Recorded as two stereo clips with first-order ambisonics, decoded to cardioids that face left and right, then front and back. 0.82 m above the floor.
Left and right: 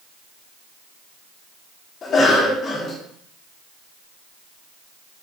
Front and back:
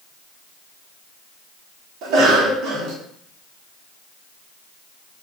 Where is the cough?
150° left, 0.7 m.